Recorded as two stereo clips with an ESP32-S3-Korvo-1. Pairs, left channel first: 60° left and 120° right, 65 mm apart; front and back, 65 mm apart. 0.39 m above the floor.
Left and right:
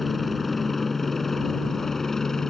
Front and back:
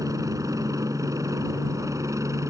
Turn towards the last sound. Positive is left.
turn(degrees=140)